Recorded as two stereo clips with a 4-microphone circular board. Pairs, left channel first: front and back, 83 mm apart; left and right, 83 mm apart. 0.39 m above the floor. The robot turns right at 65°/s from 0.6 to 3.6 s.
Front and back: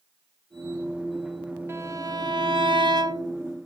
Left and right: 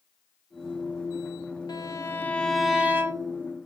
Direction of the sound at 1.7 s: 120° left.